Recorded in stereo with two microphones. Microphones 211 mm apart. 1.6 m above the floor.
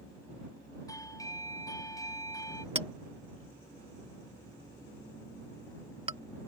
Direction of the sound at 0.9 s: 15° left (ahead or behind).